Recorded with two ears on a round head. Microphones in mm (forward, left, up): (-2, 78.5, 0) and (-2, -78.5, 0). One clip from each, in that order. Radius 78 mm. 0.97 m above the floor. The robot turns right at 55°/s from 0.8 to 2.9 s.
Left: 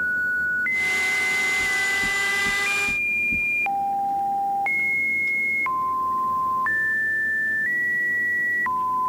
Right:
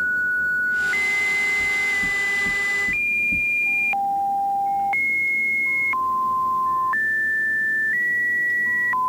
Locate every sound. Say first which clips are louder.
1.6 s knocking: right 1 dB; 75° right (ahead or behind), 2.5 m; by 3.5 s 35° right (ahead or behind), 2.5 m